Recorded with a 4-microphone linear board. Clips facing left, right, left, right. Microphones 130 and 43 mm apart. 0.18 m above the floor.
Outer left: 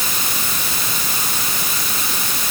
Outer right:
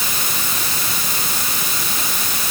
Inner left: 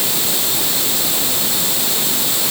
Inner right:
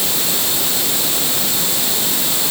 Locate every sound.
Only background noise.